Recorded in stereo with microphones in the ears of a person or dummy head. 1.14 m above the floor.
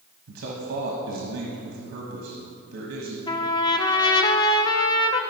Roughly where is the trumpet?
Centre.